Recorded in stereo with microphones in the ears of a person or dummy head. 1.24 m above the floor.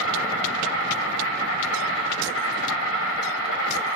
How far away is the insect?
About 1.7 m.